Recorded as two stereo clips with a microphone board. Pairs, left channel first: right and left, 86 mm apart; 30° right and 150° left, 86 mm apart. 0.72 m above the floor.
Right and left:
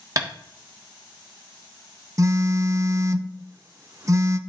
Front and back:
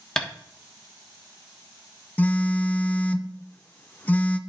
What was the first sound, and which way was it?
Tapping, 55° left.